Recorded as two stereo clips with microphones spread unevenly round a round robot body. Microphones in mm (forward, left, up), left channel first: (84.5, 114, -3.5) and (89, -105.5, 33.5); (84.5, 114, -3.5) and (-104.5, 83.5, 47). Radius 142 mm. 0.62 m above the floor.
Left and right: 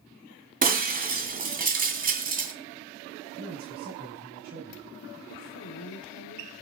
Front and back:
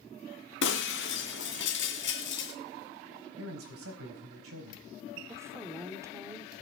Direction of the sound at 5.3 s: 110° left.